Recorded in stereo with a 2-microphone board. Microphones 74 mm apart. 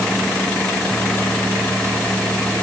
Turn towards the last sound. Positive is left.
No sound to turn to.